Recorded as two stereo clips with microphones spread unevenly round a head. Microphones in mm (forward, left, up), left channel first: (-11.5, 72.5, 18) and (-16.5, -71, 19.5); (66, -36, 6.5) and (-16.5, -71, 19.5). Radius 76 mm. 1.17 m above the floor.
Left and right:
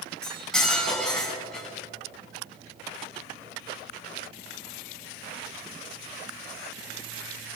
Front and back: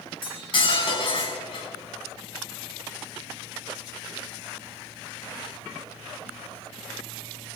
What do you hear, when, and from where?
0.2 s cutlery clinking: straight ahead, 7 m